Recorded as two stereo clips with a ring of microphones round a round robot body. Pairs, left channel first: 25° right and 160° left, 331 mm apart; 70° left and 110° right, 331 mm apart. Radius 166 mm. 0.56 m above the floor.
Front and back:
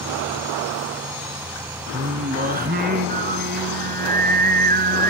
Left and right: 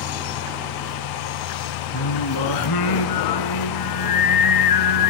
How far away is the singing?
About 1.5 m.